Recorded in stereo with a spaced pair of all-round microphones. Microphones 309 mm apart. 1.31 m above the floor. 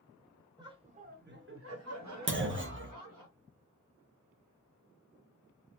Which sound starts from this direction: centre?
Laughter, at 0.6 s.